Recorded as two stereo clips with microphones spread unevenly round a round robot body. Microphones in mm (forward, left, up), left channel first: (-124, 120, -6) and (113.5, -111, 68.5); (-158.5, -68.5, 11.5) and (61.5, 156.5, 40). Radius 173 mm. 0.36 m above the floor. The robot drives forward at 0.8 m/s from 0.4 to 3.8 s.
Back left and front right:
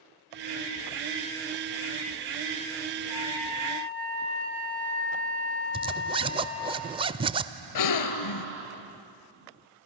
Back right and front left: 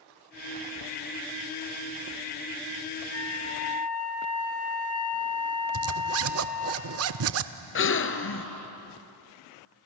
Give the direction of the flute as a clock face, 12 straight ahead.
5 o'clock.